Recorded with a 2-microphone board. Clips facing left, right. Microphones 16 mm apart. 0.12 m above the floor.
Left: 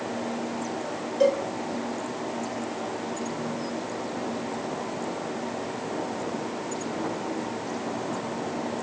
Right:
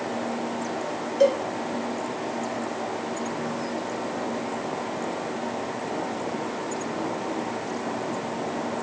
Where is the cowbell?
15° right (ahead or behind), 1.3 m.